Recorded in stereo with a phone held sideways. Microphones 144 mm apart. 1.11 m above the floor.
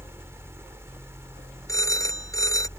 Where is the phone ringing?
20° left (ahead or behind).